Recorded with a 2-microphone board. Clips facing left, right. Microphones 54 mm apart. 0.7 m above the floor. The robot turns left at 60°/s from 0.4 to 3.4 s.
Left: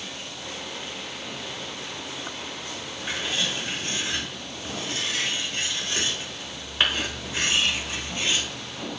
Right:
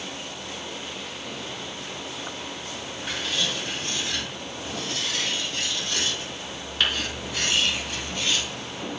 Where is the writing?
5° left (ahead or behind), 0.8 m; by 8.5 s 20° left (ahead or behind), 0.8 m.